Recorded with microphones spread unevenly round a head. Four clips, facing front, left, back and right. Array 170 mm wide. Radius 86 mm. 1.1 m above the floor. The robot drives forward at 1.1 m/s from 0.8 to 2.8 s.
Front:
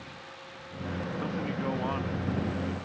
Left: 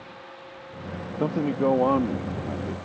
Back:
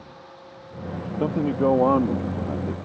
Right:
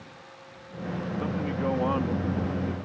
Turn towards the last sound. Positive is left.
turn(degrees=165)